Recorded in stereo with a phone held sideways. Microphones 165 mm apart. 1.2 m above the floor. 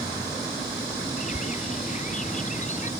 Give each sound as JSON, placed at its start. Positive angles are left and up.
{"t": 1.2, "sound": "a bird", "side_deg": 45}